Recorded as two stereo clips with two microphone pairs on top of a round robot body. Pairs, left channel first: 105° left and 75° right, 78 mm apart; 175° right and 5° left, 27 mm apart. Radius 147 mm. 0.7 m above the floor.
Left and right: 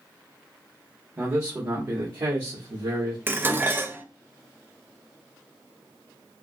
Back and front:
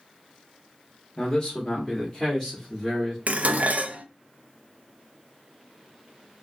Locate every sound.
1.2 s a man speaking: 120° right, 1.2 m; by 3.2 s 80° right, 2 m
3.3 s dishes clattering: 10° right, 0.5 m